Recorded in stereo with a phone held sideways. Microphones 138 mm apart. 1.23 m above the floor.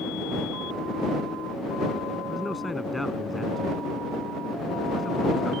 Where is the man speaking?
Centre (ahead or behind).